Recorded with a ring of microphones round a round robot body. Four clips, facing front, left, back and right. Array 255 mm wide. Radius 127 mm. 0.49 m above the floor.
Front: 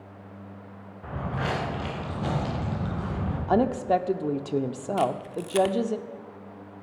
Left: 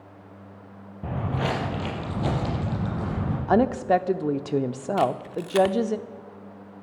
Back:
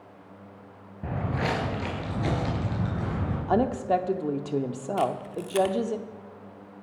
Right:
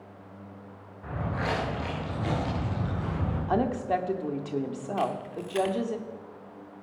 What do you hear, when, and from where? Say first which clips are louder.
1.0 s footsteps: left 3 dB, back 2 dB; 130° left, 3.5 m; by 3.4 s 115° left, 7 m
3.5 s a woman speaking: left 7 dB, front 1 dB; 80° left, 0.7 m
5.0 s a camera shutter: left 6 dB, front 1 dB; 80° left, 0.8 m